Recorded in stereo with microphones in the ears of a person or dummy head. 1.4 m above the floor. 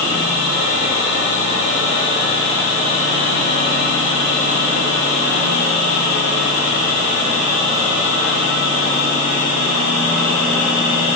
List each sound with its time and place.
Only background noise.